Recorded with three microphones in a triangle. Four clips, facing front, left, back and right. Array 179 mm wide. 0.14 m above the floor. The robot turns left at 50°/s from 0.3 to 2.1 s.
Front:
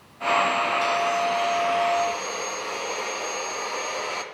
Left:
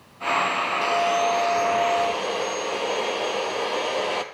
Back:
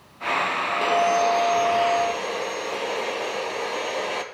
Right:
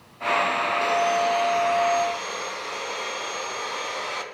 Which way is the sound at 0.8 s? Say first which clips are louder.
Left 1 dB, back 3 dB; straight behind.